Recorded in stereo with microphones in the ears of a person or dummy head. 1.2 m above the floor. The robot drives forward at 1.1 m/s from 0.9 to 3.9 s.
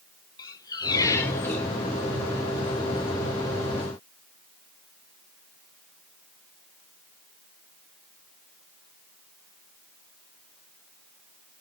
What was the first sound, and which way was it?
A squeak, 25° left (ahead or behind).